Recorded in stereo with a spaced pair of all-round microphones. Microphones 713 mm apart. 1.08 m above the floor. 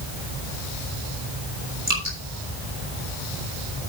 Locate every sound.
1.9 s dripping: 25° right (ahead or behind), 6.5 m